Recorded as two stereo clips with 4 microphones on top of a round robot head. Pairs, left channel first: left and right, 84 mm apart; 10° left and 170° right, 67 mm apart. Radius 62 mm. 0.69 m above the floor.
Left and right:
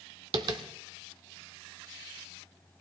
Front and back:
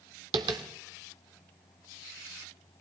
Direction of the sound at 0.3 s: 140° right.